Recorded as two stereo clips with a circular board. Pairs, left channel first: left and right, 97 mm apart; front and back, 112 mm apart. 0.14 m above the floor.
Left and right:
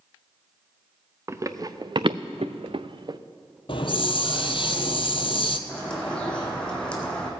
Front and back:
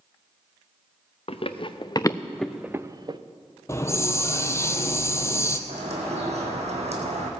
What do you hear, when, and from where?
1.3 s running footsteps: 30° right, 1.0 m; by 3.2 s 135° right, 0.8 m
3.7 s a hiss: 65° left, 0.8 m
5.7 s a bird: 170° left, 2 m